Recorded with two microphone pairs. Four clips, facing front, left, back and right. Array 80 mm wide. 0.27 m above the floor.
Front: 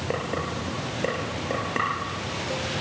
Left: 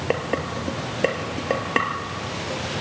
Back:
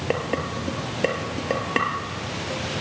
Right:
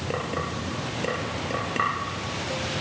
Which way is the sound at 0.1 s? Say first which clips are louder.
Left 5 dB, back 3 dB; 100° left.